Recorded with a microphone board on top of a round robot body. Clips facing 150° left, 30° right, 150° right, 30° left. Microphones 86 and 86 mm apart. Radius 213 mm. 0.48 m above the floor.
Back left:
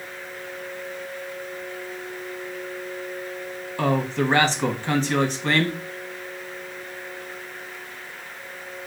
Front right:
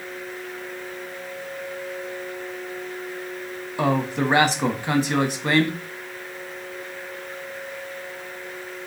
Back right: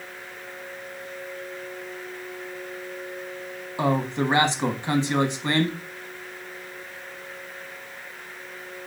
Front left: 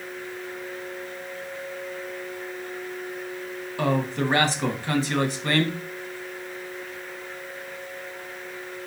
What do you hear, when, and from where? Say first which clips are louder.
3.8 s a man speaking: front right 1 dB, back right 1 dB; 100° right, 1.2 m